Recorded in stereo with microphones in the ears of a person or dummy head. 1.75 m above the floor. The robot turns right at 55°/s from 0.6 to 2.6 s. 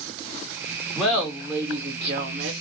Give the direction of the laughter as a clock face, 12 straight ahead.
6 o'clock.